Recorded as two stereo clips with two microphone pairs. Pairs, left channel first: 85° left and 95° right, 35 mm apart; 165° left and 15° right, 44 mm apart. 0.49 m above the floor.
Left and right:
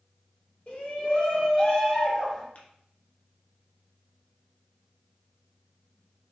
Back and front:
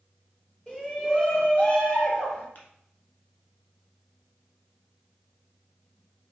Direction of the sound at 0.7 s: 110° left.